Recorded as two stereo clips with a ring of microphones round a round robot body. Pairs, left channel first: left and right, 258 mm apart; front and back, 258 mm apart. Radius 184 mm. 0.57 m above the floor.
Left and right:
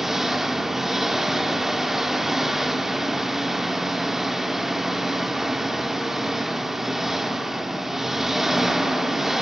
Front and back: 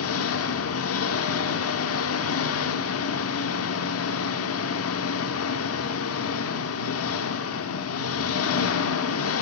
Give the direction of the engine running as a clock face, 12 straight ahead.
12 o'clock.